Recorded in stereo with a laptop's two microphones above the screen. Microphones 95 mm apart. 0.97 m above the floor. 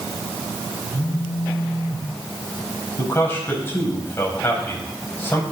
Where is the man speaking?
25° left (ahead or behind), 5 m.